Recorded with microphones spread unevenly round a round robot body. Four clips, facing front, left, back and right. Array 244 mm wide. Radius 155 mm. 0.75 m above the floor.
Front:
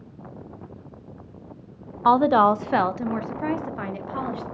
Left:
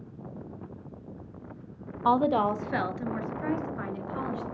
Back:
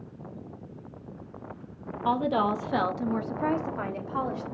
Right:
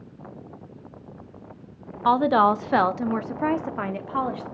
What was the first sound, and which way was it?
A woman speaking, 35° right.